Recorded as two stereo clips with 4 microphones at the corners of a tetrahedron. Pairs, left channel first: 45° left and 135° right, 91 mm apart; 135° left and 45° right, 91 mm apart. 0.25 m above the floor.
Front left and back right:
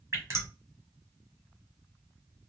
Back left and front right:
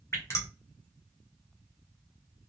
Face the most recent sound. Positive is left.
turn(degrees=180)